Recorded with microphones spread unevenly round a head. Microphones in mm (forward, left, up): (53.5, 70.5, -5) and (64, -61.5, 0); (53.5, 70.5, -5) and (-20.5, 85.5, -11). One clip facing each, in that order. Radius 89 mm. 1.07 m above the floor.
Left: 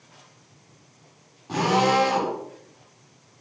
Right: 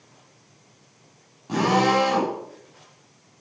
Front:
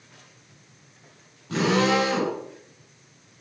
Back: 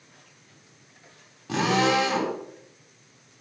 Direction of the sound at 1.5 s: 165° right.